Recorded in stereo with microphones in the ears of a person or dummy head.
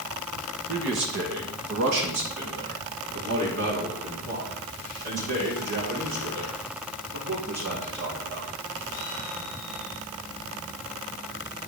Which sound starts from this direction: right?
A man speaking, at 0.7 s.